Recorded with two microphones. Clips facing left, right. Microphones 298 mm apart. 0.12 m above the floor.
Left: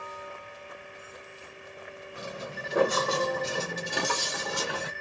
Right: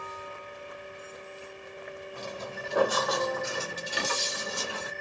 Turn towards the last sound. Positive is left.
turn(degrees=80)